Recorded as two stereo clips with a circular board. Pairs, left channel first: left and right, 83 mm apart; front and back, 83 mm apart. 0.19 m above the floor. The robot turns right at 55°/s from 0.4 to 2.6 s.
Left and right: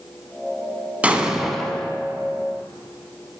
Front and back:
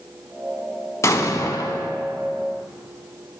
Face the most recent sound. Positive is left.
turn(degrees=60)